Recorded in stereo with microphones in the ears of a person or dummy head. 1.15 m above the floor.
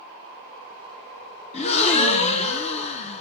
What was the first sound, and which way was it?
A gasp, 35° left (ahead or behind).